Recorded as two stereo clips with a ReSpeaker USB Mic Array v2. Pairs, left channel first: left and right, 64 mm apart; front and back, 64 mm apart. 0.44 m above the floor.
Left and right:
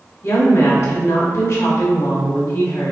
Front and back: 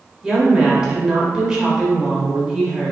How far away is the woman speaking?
About 1.2 m.